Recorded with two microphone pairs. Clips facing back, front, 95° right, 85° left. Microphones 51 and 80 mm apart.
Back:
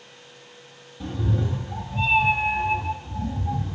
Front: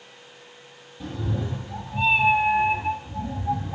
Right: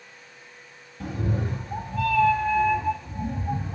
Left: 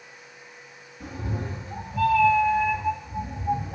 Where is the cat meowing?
85° right, 1.9 m; by 3.8 s 30° right, 0.9 m.